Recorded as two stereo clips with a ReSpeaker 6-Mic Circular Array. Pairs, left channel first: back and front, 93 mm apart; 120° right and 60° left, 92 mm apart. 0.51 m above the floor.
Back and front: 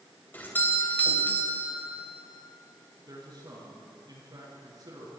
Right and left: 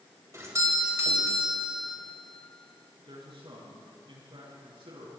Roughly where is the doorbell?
Behind left.